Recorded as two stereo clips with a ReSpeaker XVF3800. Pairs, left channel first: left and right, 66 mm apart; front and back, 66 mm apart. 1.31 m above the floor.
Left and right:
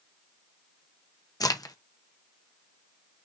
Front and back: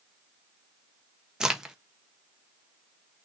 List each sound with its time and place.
1.4 s a crack: 105° left, 1.0 m